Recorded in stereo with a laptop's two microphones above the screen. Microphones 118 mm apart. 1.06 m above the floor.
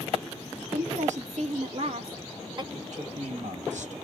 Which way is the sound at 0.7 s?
75° right (ahead or behind).